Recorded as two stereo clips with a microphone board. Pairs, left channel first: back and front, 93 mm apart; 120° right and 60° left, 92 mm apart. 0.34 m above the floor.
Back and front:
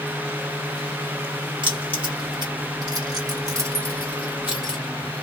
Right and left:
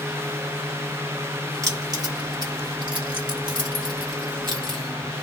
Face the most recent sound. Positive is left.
turn(degrees=85)